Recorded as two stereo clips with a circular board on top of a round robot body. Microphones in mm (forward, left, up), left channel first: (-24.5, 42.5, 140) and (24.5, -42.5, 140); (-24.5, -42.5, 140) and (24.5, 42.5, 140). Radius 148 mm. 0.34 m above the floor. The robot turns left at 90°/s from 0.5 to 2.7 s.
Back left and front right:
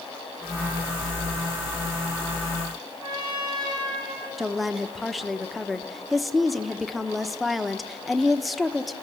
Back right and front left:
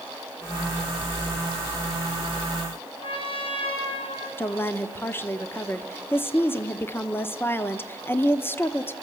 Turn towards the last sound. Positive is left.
turn(degrees=-150)